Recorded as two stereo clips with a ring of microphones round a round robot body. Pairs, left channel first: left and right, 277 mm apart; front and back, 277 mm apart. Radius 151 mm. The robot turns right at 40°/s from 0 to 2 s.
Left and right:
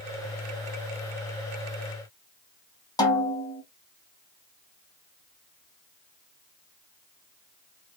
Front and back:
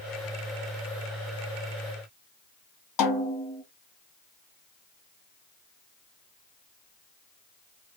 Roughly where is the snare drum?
Ahead.